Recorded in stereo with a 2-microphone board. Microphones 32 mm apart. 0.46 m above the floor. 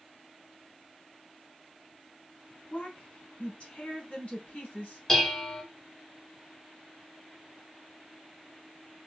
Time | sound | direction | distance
2.7 | a woman speaking | 50° left (ahead or behind) | 3.5 m
5.1 | dishes clattering | 10° left (ahead or behind) | 1.0 m